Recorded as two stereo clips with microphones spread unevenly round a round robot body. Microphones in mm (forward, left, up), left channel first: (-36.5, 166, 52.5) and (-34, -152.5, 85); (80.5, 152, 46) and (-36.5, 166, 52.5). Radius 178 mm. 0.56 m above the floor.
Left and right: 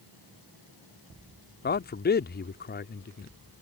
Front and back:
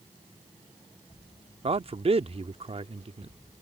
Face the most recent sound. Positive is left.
turn(degrees=145)